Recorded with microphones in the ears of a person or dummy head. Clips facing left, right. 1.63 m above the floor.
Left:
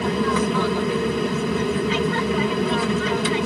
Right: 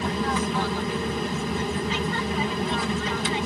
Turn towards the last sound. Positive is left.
turn(degrees=60)  # may be behind; listen again after turning